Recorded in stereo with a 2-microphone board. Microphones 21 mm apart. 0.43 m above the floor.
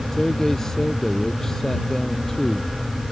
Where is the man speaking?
25° left (ahead or behind).